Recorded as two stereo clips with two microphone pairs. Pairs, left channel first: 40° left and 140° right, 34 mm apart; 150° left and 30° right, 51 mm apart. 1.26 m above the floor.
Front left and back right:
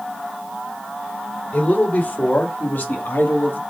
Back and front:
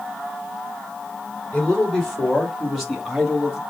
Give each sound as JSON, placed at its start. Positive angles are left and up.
{"t": 1.5, "sound": "a man speaking", "azimuth_deg": 70, "distance_m": 2.5}